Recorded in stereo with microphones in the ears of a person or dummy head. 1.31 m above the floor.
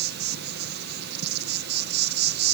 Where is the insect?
50° right (ahead or behind), 1.6 m.